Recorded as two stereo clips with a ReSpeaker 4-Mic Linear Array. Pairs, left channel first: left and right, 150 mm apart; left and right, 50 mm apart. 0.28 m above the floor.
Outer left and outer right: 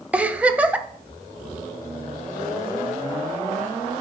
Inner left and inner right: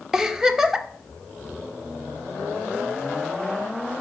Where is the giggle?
10° right (ahead or behind), 0.5 m.